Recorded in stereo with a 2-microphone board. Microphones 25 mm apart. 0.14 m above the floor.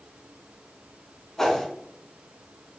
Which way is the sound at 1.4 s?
15° left (ahead or behind).